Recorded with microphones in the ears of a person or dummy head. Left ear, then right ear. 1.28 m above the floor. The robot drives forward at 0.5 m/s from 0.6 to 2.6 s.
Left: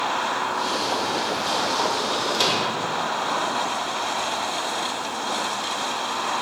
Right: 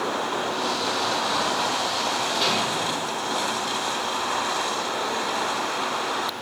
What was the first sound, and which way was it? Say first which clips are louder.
A microwave: left 2 dB; 75° left (ahead or behind).